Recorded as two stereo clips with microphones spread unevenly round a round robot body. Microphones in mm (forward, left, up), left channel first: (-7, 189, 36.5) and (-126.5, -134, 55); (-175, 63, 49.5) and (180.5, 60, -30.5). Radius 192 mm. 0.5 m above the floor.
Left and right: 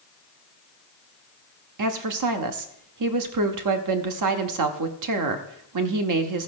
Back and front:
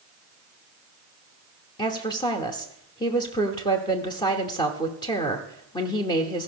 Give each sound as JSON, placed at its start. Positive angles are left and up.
{"t": 1.8, "sound": "a woman speaking", "azimuth_deg": -95, "distance_m": 1.0}